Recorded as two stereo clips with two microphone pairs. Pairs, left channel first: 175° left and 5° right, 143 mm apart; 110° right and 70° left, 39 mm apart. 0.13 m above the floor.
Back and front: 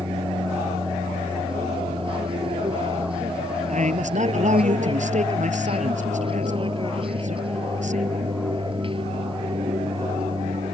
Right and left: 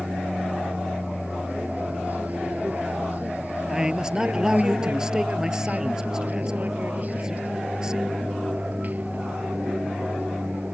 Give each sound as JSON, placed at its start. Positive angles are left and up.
{"t": 0.0, "sound": "an aircraft", "azimuth_deg": 40}
{"t": 3.7, "sound": "a man speaking", "azimuth_deg": 0}